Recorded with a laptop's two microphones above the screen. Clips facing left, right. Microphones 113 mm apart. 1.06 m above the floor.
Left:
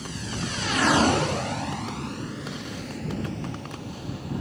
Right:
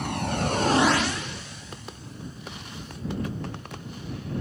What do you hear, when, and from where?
0.0 s a vehicle: 65° right (ahead or behind); by 4.4 s 80° left